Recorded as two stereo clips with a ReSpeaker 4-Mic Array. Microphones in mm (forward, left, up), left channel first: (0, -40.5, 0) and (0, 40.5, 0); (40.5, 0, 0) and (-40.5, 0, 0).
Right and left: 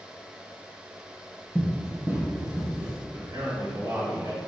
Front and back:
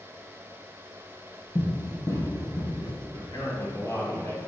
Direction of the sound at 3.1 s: 55° left.